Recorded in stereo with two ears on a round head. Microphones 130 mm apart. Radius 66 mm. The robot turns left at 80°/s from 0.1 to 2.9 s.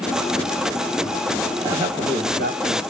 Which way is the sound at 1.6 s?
20° right.